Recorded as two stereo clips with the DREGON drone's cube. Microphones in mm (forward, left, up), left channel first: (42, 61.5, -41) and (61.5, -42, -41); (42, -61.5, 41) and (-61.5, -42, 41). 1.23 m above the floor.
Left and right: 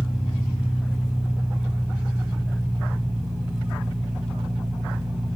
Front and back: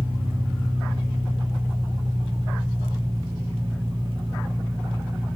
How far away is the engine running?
About 5 m.